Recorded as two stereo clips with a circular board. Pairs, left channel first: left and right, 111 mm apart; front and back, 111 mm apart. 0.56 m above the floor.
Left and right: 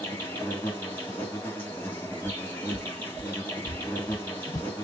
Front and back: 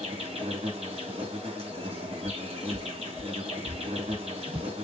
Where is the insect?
160° left, 2.5 m.